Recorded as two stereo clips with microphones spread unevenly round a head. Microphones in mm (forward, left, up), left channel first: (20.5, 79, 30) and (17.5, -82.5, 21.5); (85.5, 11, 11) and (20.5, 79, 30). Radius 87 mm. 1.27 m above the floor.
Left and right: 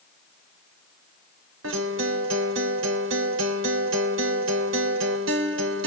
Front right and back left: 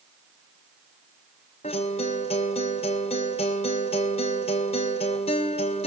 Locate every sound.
1.6 s a guitar: 100° right, 2.5 m